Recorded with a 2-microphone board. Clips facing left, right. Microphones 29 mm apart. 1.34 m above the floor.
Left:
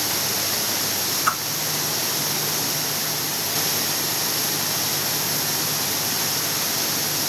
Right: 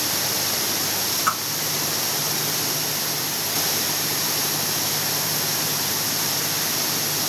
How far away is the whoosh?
About 2 m.